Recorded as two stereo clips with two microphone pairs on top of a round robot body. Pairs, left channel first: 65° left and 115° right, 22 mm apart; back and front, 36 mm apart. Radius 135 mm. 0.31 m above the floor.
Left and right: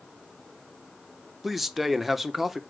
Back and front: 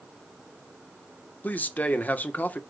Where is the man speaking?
Straight behind, 1.1 m.